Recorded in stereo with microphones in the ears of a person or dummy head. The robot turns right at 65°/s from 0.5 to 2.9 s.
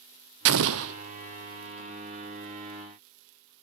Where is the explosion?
65° right (ahead or behind), 0.5 m.